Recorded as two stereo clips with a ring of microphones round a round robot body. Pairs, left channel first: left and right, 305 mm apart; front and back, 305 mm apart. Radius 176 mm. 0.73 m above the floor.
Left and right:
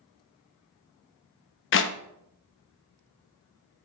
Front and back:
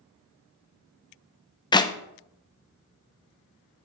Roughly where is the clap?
Left.